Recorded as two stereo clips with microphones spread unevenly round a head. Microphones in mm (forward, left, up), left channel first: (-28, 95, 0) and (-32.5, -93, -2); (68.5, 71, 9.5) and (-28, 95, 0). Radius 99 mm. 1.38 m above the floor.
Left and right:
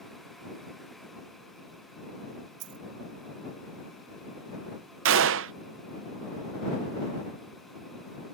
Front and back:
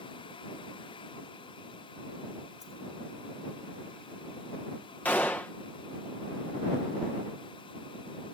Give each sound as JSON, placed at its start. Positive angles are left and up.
{"t": 2.6, "sound": "a dropped coin", "azimuth_deg": -90}
{"t": 5.0, "sound": "a gunshot", "azimuth_deg": -90}